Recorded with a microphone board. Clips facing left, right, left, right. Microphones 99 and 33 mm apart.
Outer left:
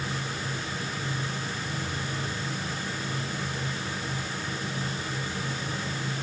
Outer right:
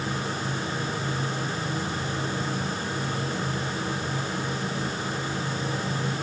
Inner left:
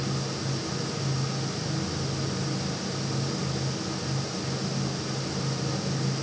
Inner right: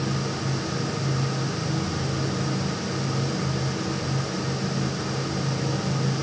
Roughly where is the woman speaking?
I don't hear a woman speaking.